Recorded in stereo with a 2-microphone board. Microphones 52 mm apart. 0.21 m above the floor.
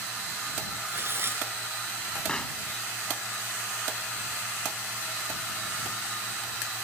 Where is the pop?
15° left (ahead or behind).